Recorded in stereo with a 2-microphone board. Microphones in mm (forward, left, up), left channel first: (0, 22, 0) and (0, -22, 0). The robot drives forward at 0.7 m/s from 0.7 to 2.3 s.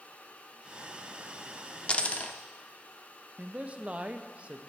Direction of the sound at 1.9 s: 25° left (ahead or behind).